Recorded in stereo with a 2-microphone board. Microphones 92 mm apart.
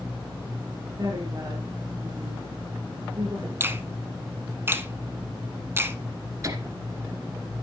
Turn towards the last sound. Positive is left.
turn(degrees=-35)  # may be behind; listen again after turning